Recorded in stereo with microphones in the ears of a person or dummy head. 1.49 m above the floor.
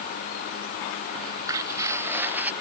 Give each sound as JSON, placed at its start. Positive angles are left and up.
{"t": 1.1, "sound": "footsteps", "side_deg": -20}